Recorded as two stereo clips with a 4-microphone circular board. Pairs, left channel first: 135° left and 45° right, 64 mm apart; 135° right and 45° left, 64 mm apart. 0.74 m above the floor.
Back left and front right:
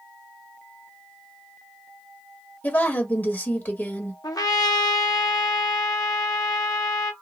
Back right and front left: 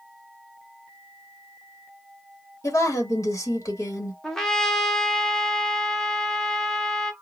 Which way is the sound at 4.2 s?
140° left.